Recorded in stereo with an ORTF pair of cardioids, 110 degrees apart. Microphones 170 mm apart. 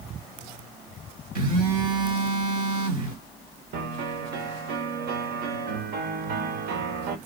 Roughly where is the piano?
Ahead right.